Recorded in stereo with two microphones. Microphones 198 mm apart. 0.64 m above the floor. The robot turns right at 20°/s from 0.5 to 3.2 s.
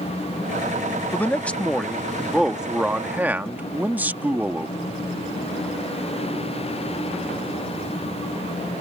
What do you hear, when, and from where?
1.1 s a man speaking: 10° left (ahead or behind); by 4.8 s 10° right (ahead or behind)